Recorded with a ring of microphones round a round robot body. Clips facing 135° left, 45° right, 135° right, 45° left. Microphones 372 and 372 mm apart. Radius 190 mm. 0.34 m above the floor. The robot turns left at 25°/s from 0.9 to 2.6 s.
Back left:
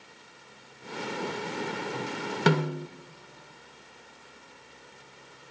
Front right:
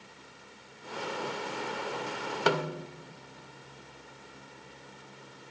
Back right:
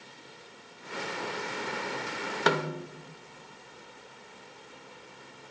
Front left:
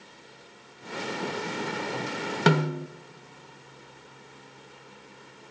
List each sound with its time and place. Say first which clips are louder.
2.5 s a snare drum: back left 4 dB, front left 5 dB; 85° left, 0.6 m; by 2.9 s 80° left, 0.6 m